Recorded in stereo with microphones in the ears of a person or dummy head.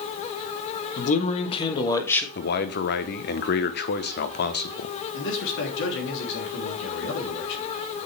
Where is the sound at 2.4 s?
55° left (ahead or behind), 1.0 m.